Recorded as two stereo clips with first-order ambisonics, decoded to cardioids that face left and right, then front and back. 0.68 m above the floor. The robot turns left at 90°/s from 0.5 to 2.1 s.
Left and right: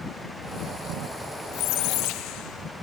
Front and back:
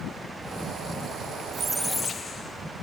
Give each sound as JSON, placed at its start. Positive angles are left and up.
{"t": 1.5, "sound": "a squeak", "azimuth_deg": 115, "distance_m": 0.8}